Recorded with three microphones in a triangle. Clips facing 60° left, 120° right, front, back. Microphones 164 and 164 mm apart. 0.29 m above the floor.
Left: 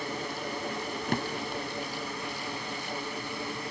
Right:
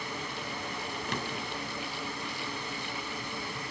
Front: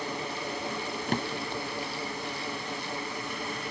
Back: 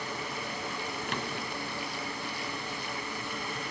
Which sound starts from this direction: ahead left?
A drawer, at 1.1 s.